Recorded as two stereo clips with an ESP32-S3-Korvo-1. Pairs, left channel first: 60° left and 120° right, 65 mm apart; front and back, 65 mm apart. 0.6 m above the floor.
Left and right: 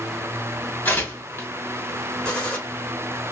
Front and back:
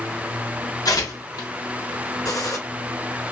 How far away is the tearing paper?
About 2.5 m.